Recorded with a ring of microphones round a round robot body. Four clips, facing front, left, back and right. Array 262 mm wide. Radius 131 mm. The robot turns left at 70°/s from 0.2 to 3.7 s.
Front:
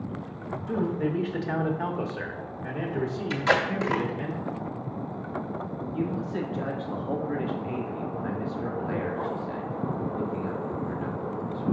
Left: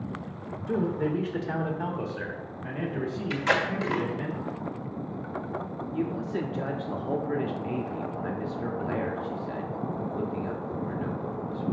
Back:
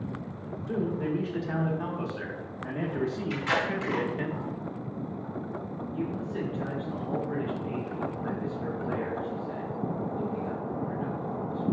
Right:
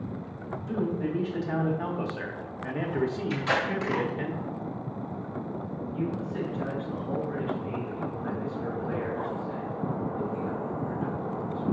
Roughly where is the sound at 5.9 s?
Ahead left.